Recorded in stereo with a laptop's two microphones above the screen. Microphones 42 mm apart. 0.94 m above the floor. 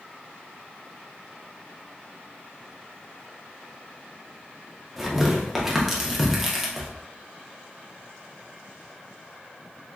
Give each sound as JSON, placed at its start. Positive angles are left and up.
{"t": 5.0, "sound": "tearing paper", "side_deg": -10, "distance_m": 0.7}